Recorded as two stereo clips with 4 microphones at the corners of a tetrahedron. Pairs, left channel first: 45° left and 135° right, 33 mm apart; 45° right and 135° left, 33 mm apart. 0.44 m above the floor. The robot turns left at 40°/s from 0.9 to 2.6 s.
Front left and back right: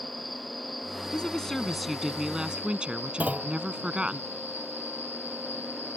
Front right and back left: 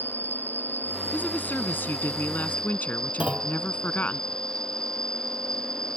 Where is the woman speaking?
15° right; by 4.2 s 75° right.